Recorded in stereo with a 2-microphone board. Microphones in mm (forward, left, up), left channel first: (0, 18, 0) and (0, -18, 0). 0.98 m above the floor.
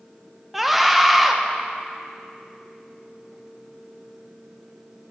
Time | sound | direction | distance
0.5 | a scream | 5° right (ahead or behind) | 0.7 m